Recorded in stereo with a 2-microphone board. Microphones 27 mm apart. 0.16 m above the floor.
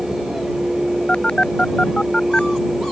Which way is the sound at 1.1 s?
35° left (ahead or behind).